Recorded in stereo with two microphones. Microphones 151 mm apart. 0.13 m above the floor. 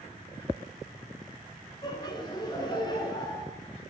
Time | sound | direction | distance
1.8 | laughter | 30° left (ahead or behind) | 1.2 m